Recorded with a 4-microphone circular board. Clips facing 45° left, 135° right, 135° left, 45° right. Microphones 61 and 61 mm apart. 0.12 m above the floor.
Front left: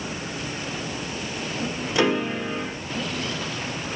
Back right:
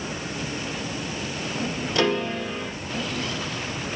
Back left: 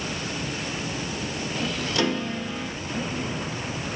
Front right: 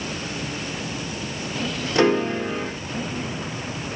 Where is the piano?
15° right, 0.6 m.